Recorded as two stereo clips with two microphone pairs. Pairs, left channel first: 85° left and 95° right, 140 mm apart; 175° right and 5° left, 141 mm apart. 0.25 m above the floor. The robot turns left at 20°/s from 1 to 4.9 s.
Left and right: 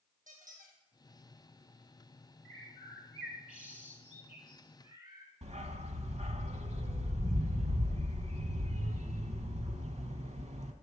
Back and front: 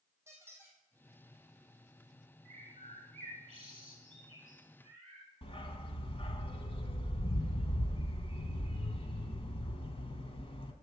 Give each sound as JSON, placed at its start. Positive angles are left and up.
{"t": 0.3, "sound": "a squeak", "azimuth_deg": -70, "distance_m": 1.8}
{"t": 2.5, "sound": "a bird", "azimuth_deg": 5, "distance_m": 1.5}
{"t": 5.4, "sound": "a dog barking", "azimuth_deg": -125, "distance_m": 0.7}